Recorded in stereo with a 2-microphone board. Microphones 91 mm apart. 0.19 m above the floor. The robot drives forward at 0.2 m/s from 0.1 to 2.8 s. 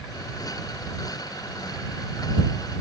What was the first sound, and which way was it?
Only background noise.